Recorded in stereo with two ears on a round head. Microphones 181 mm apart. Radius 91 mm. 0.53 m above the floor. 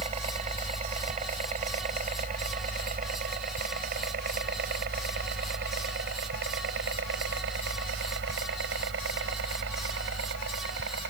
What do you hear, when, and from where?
0.0 s a helicopter: 35° right (ahead or behind); by 11.1 s 65° right (ahead or behind)